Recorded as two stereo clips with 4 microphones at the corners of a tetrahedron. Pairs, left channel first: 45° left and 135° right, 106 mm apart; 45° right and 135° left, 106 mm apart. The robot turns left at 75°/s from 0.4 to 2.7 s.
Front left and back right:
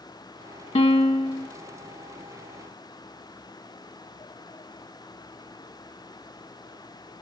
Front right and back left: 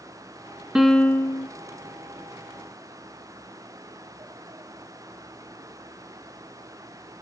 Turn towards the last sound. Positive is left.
turn(degrees=-95)